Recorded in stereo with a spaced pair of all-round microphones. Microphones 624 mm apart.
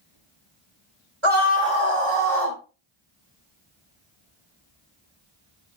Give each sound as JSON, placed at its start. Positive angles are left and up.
{"t": 1.2, "sound": "a scream", "side_deg": -50, "distance_m": 4.0}